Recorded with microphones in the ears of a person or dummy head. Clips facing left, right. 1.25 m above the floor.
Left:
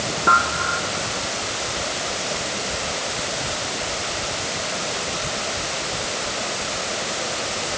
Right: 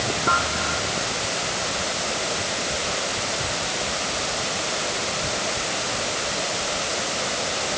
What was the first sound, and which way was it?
Only background noise.